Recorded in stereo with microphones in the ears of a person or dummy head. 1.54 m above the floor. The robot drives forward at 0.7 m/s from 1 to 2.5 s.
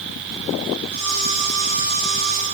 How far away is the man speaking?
No man speaking in this recording.